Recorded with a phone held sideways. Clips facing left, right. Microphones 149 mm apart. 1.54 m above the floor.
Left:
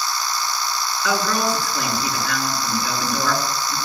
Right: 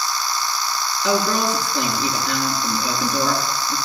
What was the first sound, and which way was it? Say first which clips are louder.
A woman speaking: right 2 dB; 20° right (ahead or behind).